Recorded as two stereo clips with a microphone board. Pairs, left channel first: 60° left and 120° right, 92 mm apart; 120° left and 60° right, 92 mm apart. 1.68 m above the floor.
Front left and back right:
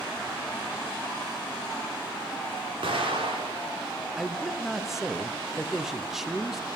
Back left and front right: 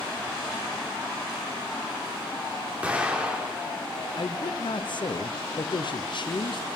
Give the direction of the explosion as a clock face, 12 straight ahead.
5 o'clock.